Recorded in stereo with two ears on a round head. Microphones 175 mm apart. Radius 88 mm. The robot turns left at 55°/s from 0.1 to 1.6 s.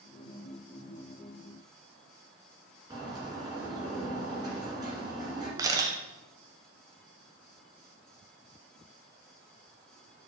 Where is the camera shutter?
20° right (ahead or behind), 0.8 m.